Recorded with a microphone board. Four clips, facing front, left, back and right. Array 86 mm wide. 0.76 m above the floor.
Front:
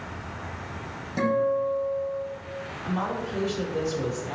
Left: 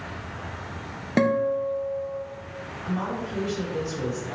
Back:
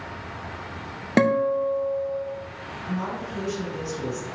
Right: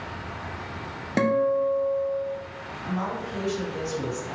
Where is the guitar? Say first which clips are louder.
Even, back 3 dB; 175° left, 0.5 m.